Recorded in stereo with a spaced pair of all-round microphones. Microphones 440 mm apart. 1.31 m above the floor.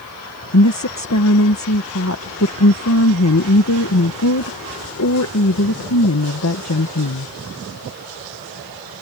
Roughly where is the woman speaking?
Left.